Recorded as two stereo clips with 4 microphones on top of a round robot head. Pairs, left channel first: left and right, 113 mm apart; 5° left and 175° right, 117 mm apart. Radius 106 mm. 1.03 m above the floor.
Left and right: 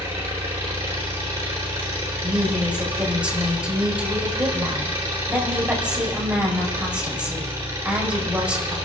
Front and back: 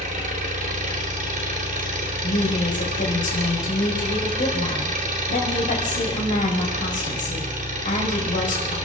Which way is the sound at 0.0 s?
165° right.